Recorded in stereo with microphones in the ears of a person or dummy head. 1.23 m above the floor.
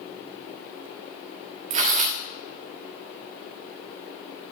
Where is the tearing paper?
45° right (ahead or behind), 1.4 m.